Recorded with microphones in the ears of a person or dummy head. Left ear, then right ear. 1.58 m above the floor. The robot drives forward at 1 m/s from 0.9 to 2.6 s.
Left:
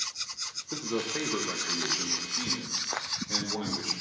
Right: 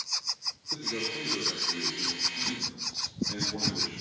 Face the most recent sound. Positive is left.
turn(degrees=30)  # may be behind; listen again after turning